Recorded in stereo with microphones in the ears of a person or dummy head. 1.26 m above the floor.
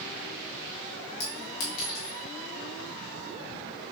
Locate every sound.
1.2 s a clink: 70° left (ahead or behind), 0.9 m